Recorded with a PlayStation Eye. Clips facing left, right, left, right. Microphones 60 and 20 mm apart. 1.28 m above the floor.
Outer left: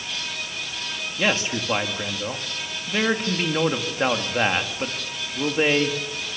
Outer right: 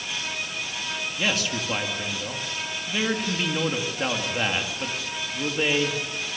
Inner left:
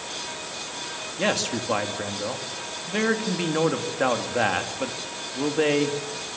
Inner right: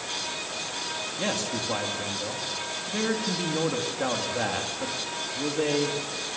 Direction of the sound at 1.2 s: 30° left (ahead or behind).